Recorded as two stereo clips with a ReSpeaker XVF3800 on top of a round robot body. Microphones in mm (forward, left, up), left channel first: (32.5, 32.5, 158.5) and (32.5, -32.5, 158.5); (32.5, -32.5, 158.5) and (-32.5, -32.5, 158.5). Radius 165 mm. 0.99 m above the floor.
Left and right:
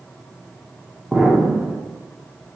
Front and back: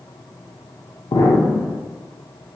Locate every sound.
1.1 s an explosion: straight ahead, 0.8 m